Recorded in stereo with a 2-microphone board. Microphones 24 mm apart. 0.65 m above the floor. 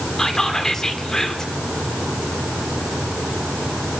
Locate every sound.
0.2 s whispering: 25° left (ahead or behind), 2 m